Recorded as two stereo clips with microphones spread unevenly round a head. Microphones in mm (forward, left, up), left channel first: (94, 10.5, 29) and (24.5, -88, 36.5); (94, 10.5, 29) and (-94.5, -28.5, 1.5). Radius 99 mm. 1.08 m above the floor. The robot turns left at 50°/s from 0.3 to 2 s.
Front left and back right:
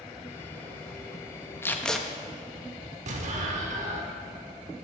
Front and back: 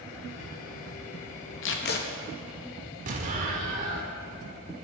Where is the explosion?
115° right, 1.3 m.